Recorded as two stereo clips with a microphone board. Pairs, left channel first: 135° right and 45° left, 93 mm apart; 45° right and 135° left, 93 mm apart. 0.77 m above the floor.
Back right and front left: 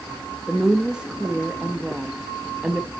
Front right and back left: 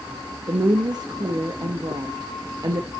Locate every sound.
0.5 s a woman speaking: 120° left, 0.8 m